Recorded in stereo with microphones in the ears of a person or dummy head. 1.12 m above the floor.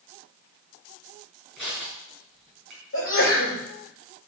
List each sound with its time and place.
1.6 s crushing: 5° left (ahead or behind), 5.5 m
2.9 s a sneeze: 65° left (ahead or behind), 4.5 m